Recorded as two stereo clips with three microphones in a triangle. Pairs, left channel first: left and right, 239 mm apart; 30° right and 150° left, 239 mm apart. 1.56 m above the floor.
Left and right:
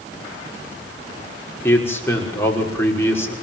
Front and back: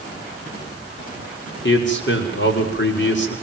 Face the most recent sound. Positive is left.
turn(degrees=10)